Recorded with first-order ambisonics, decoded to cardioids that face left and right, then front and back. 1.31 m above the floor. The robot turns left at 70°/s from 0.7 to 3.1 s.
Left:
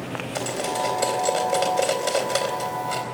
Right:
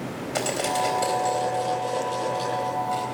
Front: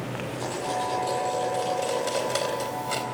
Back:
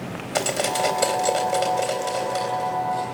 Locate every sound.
0.3 s cutlery clinking: 170° right, 3.5 m; by 3.0 s 25° left, 3.5 m